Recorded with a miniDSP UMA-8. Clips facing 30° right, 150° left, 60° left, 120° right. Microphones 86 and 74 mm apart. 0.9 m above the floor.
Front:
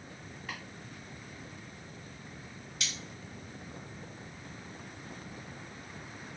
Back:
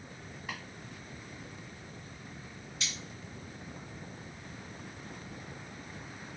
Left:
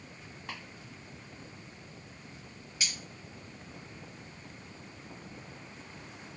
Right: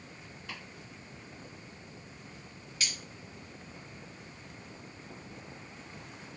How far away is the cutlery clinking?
About 1.1 m.